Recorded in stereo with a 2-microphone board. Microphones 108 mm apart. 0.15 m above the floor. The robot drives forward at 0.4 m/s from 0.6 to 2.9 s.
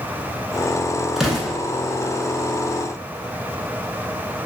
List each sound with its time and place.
1.2 s an explosion: 5° right (ahead or behind), 0.8 m